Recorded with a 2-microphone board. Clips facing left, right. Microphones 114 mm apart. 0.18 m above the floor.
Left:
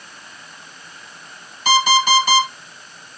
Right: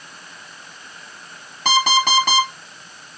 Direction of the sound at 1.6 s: 70° right (ahead or behind).